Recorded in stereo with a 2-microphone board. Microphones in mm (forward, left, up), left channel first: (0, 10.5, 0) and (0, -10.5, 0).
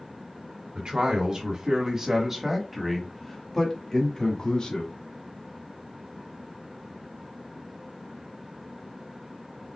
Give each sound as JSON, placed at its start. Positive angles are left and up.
{"t": 0.8, "sound": "a man speaking", "side_deg": -45, "distance_m": 1.8}